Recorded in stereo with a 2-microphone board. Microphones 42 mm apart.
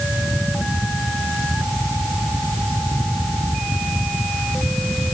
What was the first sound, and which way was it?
Only background noise.